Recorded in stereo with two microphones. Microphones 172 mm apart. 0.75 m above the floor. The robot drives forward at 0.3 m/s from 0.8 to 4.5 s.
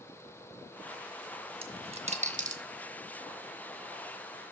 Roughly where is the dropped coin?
Right.